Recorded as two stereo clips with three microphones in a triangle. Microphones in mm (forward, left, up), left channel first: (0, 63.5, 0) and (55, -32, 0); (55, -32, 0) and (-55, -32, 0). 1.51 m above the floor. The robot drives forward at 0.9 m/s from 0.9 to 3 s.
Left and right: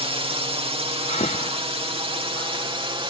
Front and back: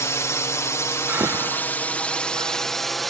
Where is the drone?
60° right; by 3.1 s 90° right.